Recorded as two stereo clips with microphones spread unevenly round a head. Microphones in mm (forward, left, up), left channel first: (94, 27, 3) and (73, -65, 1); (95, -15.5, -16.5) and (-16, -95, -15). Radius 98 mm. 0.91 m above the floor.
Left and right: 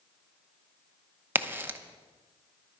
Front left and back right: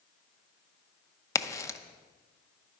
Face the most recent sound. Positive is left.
turn(degrees=-35)